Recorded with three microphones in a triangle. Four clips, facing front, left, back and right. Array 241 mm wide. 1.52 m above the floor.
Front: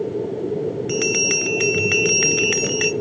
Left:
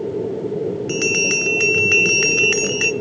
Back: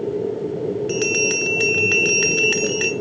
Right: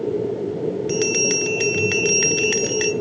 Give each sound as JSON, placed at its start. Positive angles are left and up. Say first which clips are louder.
{"t": 0.9, "sound": "a bell", "louder": "right 1 dB, back 1 dB", "azimuth_deg": 25, "distance_m": 0.8}